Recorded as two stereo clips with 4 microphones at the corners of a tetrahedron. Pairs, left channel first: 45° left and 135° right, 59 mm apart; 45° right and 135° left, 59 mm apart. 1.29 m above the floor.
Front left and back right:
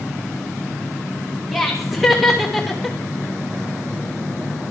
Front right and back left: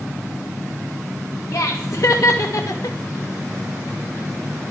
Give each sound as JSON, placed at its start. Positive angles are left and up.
{"t": 1.5, "sound": "laughter", "azimuth_deg": -45, "distance_m": 1.8}